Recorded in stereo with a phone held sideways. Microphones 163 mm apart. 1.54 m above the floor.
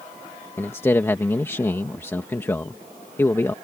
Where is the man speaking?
15° left (ahead or behind).